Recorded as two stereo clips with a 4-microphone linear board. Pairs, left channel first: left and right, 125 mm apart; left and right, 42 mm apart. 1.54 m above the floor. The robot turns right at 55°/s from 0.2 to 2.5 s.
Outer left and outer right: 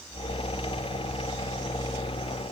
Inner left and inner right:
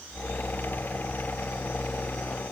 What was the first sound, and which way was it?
Only background noise.